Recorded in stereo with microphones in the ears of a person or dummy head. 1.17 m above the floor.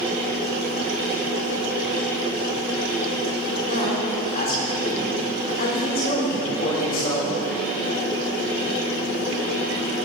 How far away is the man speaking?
About 4.5 m.